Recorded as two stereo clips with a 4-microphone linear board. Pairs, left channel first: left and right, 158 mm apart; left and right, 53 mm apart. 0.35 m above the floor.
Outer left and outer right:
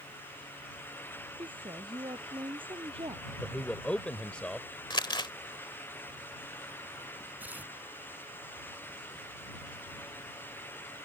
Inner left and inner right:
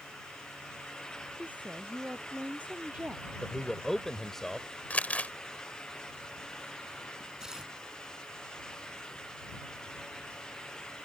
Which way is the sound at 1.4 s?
30° right (ahead or behind).